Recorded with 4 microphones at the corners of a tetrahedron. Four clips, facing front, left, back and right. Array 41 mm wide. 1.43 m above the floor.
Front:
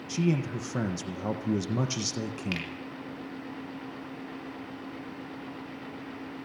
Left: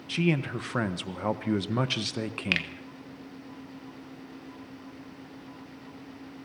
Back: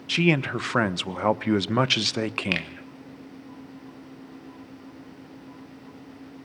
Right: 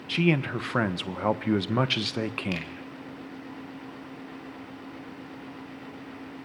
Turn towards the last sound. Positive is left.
turn(degrees=130)